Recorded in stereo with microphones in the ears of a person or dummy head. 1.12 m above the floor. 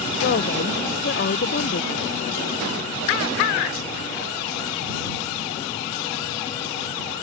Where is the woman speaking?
45° left (ahead or behind).